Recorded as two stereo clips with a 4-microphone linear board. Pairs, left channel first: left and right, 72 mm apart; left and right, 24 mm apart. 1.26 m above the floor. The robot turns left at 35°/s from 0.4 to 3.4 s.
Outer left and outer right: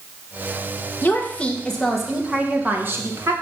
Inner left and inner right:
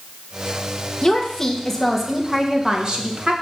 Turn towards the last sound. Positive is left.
turn(degrees=-50)